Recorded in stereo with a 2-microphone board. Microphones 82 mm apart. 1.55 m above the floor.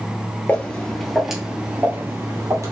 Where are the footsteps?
20° left (ahead or behind), 1.7 m; by 2.7 s 45° right (ahead or behind), 2 m.